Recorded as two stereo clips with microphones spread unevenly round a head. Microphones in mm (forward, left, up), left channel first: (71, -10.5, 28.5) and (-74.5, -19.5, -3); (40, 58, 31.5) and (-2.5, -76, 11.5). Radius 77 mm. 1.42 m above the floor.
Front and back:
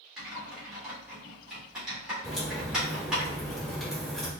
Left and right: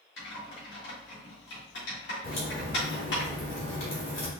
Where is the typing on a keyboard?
95° left, 2.5 m.